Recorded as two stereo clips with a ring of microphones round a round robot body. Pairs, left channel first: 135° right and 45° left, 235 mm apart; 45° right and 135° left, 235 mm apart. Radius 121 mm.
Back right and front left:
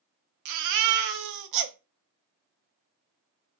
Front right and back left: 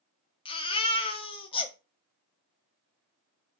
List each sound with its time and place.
0.5 s a baby crying: 25° left, 0.6 m